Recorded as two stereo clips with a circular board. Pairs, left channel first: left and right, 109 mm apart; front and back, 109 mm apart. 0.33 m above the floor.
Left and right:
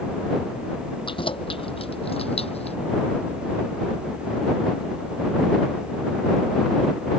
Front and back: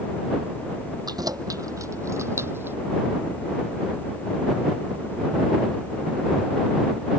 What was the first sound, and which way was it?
Keys jangling, 125° left.